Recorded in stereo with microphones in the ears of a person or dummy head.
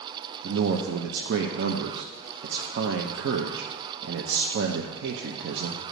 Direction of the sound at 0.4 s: 60° right (ahead or behind).